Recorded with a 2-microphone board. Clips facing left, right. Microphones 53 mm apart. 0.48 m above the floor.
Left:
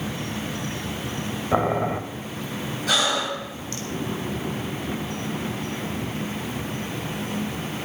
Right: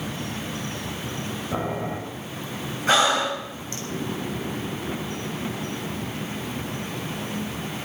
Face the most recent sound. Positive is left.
turn(degrees=-30)  # may be behind; listen again after turning